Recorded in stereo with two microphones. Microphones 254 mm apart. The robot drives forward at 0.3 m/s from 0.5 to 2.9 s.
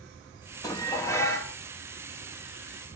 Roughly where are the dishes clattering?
Centre.